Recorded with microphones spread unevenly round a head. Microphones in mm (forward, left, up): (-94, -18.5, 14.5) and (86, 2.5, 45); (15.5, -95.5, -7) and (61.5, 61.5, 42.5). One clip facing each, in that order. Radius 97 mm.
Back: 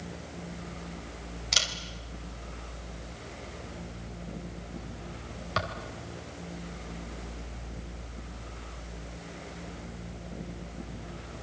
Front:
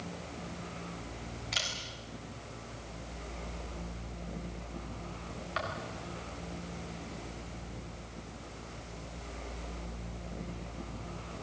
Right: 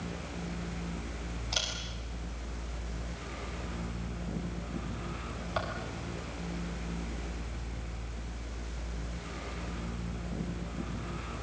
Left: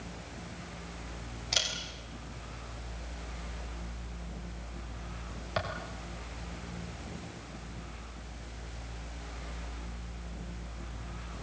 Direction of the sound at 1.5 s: 150° left.